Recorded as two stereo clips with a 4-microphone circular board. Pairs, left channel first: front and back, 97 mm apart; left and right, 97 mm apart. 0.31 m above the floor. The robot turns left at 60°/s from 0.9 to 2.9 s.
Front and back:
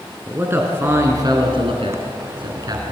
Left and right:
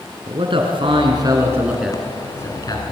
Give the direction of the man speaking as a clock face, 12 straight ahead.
4 o'clock.